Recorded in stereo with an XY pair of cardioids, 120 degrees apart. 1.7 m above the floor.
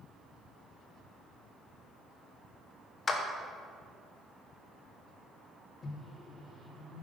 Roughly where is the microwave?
Ahead left.